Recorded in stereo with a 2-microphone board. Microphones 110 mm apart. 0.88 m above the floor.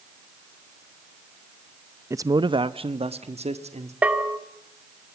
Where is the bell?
10° right (ahead or behind), 2.5 m.